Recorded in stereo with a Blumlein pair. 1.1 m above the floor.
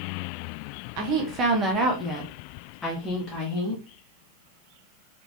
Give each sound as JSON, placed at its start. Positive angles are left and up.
{"t": 1.0, "sound": "a woman speaking", "azimuth_deg": -45, "distance_m": 1.0}